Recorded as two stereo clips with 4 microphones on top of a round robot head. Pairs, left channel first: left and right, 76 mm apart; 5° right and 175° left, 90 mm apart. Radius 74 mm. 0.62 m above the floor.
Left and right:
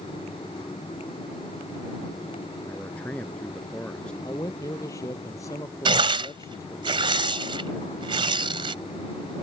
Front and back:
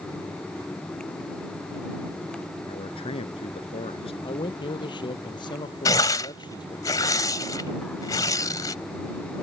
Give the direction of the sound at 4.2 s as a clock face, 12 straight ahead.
11 o'clock.